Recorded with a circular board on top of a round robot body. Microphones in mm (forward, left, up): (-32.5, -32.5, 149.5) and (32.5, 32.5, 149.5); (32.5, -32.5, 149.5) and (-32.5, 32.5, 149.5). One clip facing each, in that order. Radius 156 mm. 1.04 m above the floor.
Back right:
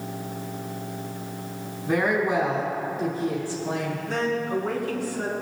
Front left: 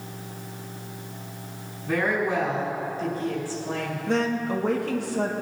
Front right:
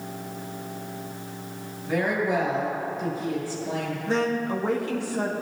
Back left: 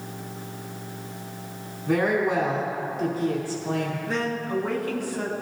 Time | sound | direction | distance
1.9 | a woman speaking | 150° left | 4.5 m
4.1 | a woman speaking | 20° left | 2 m